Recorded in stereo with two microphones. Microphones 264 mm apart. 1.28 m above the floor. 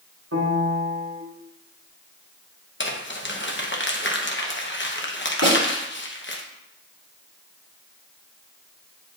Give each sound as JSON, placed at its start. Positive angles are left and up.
{"t": 0.3, "sound": "a piano", "side_deg": -60, "distance_m": 1.4}
{"t": 2.8, "sound": "crumpling", "side_deg": 45, "distance_m": 0.9}
{"t": 5.4, "sound": "a snare drum", "side_deg": -70, "distance_m": 3.5}